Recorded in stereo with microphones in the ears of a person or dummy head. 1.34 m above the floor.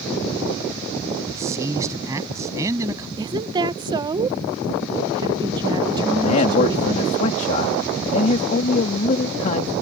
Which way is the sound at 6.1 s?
40° left (ahead or behind).